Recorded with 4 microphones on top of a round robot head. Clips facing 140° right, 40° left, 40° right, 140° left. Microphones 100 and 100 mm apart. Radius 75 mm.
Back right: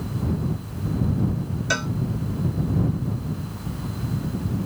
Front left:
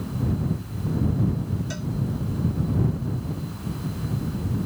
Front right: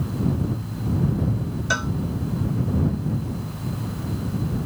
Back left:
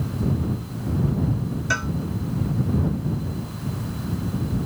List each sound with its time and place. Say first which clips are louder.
1.7 s a cowbell: back right 6 dB, front right 1 dB; 115° right